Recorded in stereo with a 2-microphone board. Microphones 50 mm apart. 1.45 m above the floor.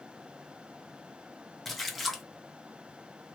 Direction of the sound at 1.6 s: Centre (ahead or behind).